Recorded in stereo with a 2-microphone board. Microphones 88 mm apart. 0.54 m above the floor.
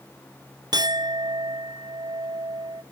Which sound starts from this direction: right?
A clink, at 0.7 s.